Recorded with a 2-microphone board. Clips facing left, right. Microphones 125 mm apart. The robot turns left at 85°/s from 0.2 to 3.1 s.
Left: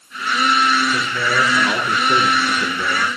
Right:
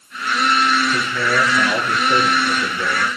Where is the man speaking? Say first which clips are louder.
Right 1 dB; 160° right, 9 m; by 3.1 s 20° left, 9 m.